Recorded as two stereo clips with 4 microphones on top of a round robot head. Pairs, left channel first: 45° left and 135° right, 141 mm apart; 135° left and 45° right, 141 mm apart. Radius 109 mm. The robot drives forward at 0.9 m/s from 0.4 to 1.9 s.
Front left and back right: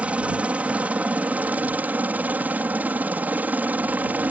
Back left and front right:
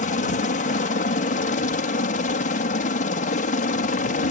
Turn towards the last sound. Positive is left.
turn(degrees=145)